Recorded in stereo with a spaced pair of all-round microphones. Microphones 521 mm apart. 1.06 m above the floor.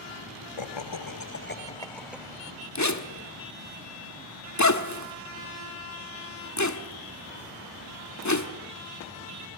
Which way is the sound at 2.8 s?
30° left (ahead or behind).